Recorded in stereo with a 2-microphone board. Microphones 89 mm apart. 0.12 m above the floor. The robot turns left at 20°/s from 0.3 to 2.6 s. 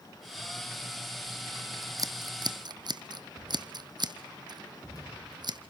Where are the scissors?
40° right (ahead or behind), 0.9 m; by 5.6 s 55° right (ahead or behind), 0.9 m.